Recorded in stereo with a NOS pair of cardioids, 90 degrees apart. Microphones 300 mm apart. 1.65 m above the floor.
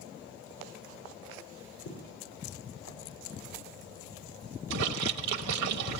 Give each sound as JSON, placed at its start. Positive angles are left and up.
{"t": 1.9, "sound": "footsteps", "azimuth_deg": 70, "distance_m": 7.0}
{"t": 4.7, "sound": "a splash", "azimuth_deg": -60, "distance_m": 1.5}